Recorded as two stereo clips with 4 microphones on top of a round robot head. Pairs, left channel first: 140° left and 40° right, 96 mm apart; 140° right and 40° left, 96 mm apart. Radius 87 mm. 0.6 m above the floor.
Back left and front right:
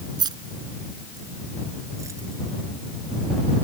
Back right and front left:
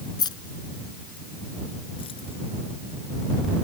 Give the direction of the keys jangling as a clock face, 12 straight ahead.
3 o'clock.